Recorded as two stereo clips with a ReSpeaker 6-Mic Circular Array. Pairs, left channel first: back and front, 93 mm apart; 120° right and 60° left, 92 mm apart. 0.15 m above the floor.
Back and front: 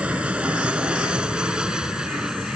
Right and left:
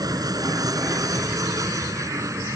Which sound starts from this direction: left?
An aircraft, at 0.0 s.